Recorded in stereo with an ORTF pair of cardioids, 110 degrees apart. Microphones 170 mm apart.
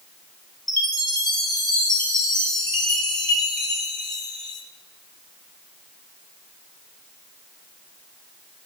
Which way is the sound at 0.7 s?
20° left.